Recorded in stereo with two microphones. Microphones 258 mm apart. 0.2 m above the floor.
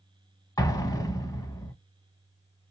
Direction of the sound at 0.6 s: 15° left (ahead or behind).